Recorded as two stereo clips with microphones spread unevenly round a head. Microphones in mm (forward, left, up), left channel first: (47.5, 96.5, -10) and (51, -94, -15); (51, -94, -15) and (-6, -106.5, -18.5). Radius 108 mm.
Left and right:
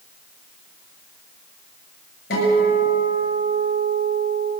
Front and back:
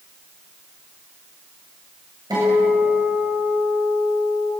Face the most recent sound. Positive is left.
turn(degrees=140)